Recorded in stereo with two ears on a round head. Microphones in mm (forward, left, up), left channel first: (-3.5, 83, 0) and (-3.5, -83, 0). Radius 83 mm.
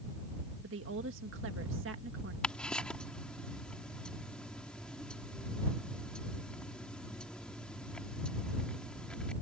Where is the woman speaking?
80° right.